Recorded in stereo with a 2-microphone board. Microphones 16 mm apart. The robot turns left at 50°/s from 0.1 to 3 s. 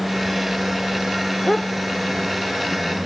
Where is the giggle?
No giggle in this recording.